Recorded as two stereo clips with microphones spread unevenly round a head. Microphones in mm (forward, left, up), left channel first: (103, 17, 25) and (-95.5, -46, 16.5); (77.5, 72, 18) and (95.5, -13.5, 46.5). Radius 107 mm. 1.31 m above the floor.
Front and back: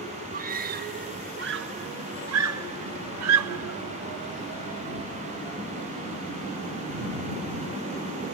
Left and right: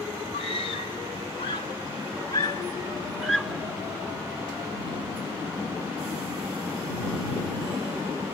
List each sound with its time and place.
0.3 s a scream: 145° left; by 3.8 s 155° right